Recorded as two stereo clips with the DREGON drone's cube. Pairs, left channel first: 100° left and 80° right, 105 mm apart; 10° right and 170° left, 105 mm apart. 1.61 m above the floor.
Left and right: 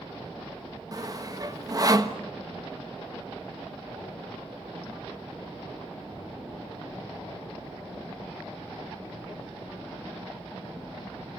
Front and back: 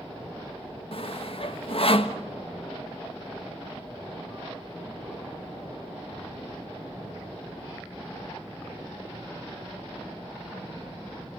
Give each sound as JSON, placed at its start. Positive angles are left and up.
{"t": 0.9, "sound": "sawing", "azimuth_deg": -25, "distance_m": 1.3}